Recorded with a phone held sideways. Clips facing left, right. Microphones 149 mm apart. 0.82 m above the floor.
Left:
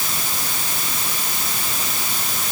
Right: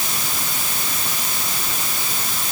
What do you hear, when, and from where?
Only background noise.